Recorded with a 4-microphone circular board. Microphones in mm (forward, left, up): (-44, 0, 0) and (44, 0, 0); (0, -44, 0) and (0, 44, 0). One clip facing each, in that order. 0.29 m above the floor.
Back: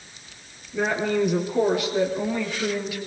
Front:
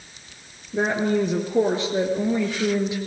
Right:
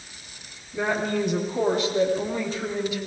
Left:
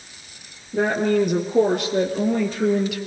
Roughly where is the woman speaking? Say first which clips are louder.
Front 2 dB, left 6 dB; ahead left.